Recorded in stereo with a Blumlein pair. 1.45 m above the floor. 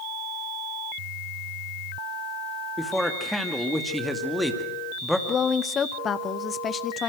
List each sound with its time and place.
2.8 s a man speaking: straight ahead, 2.5 m
5.3 s a woman speaking: 20° left, 1.1 m